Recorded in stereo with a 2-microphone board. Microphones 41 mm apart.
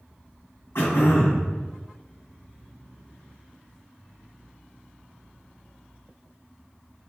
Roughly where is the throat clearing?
Left.